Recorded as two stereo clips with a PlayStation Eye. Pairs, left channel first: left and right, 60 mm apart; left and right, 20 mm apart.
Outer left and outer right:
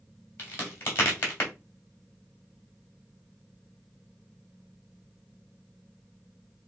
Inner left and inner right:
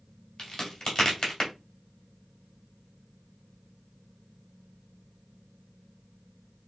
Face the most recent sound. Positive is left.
turn(degrees=35)  # may be behind; listen again after turning